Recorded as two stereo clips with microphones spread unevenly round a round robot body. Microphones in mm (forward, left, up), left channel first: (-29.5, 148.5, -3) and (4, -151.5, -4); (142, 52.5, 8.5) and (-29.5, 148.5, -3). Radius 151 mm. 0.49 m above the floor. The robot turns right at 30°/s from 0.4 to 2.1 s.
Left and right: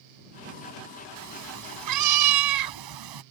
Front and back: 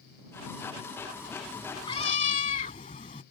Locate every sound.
1.2 s a cat meowing: 125° right; by 3.2 s 95° right